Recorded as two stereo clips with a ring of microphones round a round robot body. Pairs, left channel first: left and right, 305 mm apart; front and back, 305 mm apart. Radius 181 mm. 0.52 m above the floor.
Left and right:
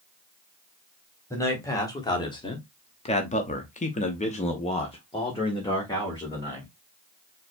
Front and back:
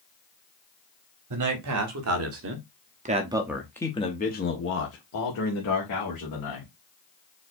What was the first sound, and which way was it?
A man speaking, 170° left.